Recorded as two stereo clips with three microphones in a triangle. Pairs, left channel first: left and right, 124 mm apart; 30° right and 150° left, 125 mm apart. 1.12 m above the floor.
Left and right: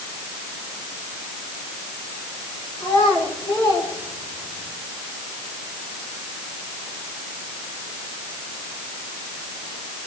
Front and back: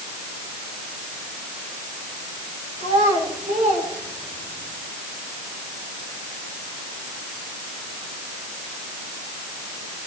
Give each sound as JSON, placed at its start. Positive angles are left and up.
{"t": 2.8, "sound": "a child speaking", "azimuth_deg": 145, "distance_m": 8.5}